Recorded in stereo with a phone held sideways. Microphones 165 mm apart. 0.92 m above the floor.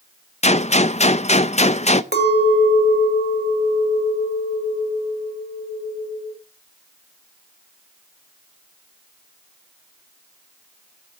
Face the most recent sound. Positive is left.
turn(degrees=-85)